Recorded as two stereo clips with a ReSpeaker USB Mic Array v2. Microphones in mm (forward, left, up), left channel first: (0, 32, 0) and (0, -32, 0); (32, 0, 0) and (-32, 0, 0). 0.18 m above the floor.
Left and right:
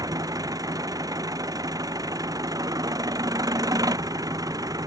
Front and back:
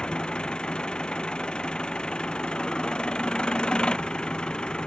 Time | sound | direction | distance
0.0 | an engine running | 75° right | ?